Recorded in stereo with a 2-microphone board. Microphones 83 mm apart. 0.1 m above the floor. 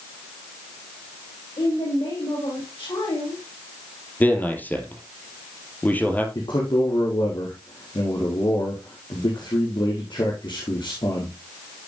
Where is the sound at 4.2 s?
20° left (ahead or behind), 3 m.